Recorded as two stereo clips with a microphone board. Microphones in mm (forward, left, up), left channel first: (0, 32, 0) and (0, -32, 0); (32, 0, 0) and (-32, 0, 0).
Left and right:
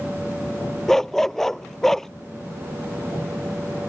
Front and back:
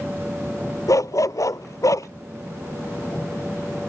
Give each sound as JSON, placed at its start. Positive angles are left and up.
{"t": 0.9, "sound": "a dog barking", "azimuth_deg": 5}